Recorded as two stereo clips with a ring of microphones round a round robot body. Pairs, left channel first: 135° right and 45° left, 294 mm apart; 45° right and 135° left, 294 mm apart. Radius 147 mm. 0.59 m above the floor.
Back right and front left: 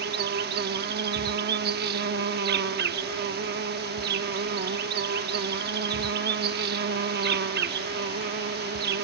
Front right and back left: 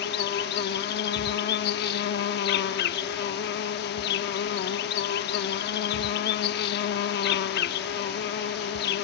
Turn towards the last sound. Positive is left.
turn(degrees=0)